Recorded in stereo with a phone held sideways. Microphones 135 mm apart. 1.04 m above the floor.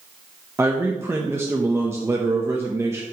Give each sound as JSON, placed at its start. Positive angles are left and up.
{"t": 0.6, "sound": "a man speaking", "side_deg": -20, "distance_m": 0.8}